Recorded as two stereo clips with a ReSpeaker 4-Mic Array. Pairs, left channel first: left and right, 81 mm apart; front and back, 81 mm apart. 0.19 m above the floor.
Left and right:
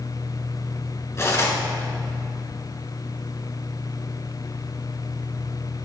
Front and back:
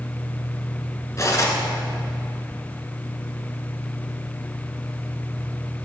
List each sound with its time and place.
1.2 s cutlery clinking: 45° left, 1.5 m